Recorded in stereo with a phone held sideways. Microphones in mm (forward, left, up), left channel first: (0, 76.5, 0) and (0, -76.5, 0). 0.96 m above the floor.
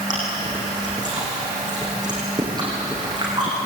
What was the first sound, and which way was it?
Chewing, 25° right (ahead or behind).